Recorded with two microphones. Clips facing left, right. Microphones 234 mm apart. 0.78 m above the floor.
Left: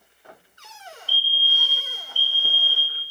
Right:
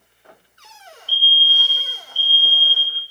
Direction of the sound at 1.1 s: 10° left (ahead or behind).